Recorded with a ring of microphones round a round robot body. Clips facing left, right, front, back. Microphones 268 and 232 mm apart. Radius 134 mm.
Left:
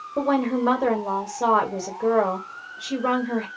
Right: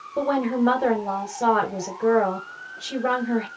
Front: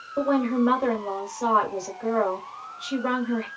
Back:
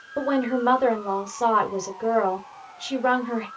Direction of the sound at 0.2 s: 170° left.